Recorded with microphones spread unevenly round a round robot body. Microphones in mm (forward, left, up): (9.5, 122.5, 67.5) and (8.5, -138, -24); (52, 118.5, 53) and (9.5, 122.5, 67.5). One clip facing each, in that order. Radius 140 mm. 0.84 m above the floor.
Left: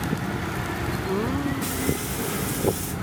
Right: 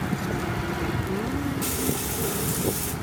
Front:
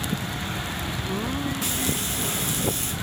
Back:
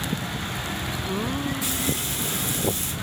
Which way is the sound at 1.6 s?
20° right.